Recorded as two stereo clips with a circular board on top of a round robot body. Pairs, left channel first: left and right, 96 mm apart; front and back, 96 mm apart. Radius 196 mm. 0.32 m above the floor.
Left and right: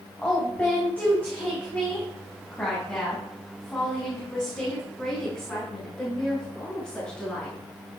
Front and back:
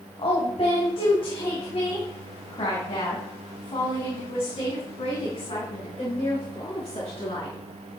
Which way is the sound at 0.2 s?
15° left.